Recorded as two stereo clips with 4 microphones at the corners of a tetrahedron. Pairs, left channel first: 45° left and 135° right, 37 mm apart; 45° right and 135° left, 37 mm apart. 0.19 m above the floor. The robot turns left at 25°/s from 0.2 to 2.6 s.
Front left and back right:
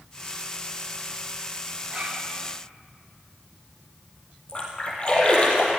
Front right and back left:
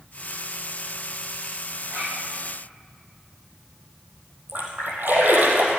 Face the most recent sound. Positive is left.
turn(degrees=105)